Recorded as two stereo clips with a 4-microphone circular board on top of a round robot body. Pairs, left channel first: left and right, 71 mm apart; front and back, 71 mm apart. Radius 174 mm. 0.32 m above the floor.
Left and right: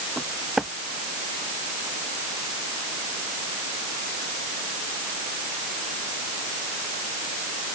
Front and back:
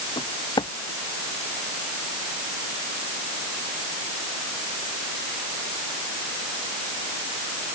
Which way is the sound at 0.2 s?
5° right.